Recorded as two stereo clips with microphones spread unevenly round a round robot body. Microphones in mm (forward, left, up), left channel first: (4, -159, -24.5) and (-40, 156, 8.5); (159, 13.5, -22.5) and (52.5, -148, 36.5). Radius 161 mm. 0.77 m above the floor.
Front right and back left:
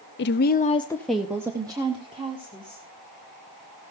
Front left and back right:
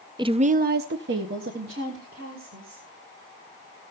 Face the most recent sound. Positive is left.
turn(degrees=170)